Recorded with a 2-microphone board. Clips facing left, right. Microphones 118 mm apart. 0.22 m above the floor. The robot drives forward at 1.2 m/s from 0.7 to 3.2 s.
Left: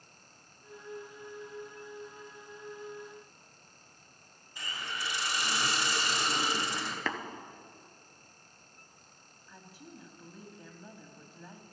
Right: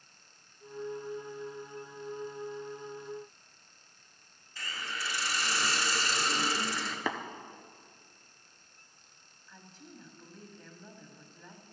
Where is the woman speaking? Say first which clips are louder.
Left 1 dB; 10° left (ahead or behind), 1.2 m.